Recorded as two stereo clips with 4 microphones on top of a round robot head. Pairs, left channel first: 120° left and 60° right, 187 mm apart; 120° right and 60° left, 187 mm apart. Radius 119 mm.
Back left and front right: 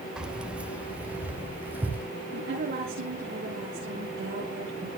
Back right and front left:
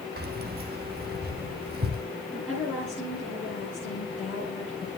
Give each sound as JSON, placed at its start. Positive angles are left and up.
{"t": 0.2, "sound": "keys jangling", "azimuth_deg": 25, "distance_m": 1.4}
{"t": 2.3, "sound": "a woman speaking", "azimuth_deg": -20, "distance_m": 9.5}